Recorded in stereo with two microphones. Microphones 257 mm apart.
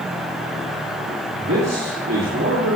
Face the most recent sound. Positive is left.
turn(degrees=-75)  # may be behind; listen again after turning